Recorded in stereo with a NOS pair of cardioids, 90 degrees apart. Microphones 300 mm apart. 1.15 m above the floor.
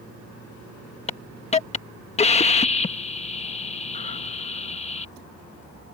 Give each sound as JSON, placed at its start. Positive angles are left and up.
{"t": 1.1, "sound": "a hiss", "azimuth_deg": 20}